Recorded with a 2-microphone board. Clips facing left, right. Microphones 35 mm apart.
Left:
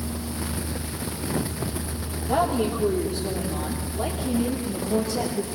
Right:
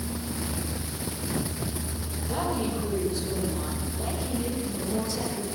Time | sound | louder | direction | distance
2.3 | a woman speaking | left 6 dB | 80° left | 8.5 m